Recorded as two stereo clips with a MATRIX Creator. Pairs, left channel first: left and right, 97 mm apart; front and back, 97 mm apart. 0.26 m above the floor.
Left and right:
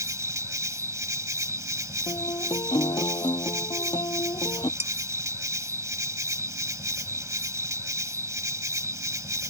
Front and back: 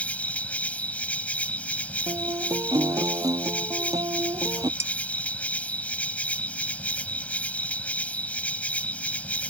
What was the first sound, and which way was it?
An insect, 65° right.